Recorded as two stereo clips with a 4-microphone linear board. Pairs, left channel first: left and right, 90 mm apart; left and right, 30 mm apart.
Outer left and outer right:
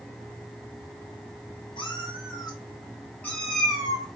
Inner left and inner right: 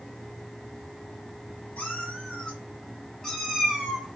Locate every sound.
1.8 s a cat meowing: 65° left (ahead or behind), 1.1 m; by 4.1 s 5° right (ahead or behind), 1.1 m